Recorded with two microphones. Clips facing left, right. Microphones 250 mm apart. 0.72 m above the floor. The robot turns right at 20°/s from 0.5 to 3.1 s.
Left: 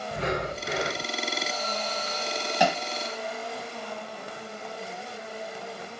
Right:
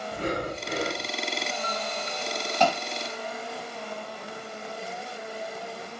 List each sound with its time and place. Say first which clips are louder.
0.1 s breathing: even; 80° left, 1.7 m; by 1.1 s 90° left, 1.7 m
2.6 s hammering: right 1 dB; 10° left (ahead or behind), 1.5 m